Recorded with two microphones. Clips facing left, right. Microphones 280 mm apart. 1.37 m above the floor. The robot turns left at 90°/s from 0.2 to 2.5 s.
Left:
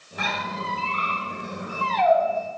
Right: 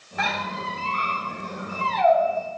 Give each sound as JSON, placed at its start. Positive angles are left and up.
{"t": 0.2, "sound": "a squeak", "side_deg": 40, "distance_m": 3.5}